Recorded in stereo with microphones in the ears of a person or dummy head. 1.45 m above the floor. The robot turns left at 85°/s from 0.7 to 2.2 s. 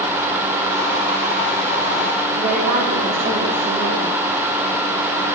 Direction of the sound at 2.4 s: 60° right (ahead or behind).